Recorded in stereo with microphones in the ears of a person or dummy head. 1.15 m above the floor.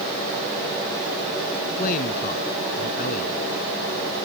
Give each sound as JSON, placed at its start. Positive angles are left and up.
{"t": 1.8, "sound": "a man speaking", "side_deg": 45}